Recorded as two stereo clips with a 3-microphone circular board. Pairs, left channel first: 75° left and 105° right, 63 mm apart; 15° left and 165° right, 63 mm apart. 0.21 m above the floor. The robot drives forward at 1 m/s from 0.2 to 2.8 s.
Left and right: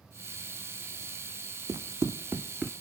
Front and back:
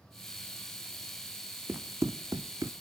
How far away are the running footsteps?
About 0.7 m.